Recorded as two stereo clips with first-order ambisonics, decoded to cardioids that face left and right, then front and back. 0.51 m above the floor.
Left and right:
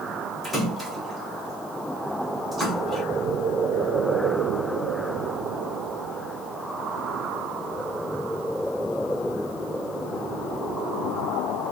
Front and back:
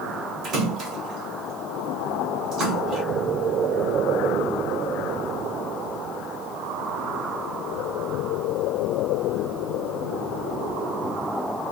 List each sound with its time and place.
0.4 s a splash: 175° right, 1.5 m